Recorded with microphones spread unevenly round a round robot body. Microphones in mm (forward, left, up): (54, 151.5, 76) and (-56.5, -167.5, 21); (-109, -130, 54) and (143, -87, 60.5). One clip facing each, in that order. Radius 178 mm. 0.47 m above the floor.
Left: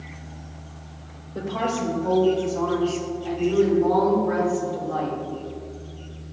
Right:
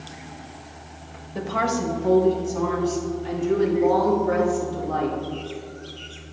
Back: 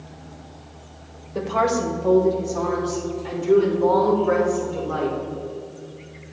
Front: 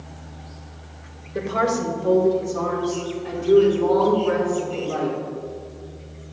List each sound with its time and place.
1.4 s a woman speaking: 60° right, 1.8 m